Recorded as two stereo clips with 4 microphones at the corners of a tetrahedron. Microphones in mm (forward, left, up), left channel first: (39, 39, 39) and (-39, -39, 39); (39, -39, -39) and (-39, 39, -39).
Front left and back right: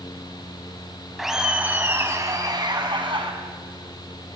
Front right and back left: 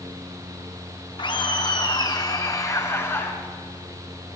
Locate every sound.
1.2 s laughter: 50° right, 1.5 m; by 3.3 s 110° right, 2 m